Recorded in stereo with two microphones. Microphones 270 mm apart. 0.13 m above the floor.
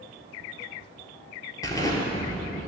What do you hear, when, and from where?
1.6 s an explosion: 15° left (ahead or behind), 0.9 m